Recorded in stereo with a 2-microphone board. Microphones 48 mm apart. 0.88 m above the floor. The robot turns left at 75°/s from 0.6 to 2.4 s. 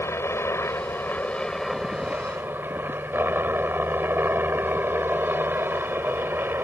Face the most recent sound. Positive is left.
turn(degrees=-50)